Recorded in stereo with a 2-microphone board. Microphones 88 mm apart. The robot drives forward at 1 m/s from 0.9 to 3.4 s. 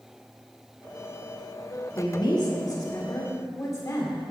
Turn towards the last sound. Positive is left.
turn(degrees=35)  # may be behind; listen again after turning